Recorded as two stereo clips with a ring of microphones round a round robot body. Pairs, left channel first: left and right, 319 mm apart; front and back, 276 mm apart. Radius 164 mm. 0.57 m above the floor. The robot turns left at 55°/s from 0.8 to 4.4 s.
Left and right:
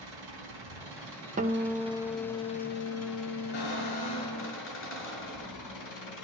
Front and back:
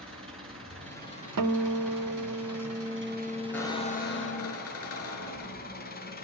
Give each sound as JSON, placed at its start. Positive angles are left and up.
{"t": 0.0, "sound": "an engine running", "azimuth_deg": -105, "distance_m": 4.0}
{"t": 1.4, "sound": "a guitar", "azimuth_deg": -155, "distance_m": 0.9}
{"t": 3.5, "sound": "a squeak", "azimuth_deg": 85, "distance_m": 3.5}